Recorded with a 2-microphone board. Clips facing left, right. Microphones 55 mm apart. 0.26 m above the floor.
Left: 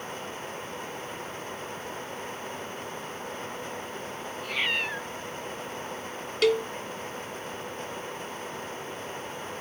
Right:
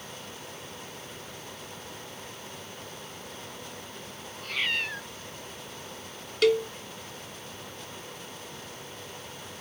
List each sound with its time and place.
4.3 s a cat meowing: 10° left (ahead or behind)
6.4 s a cowbell: centre (ahead or behind)